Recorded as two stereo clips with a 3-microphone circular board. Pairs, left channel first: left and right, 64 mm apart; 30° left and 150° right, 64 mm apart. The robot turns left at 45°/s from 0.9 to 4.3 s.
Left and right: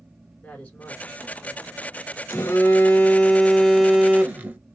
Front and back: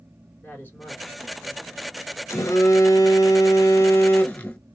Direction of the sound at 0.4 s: 45° left.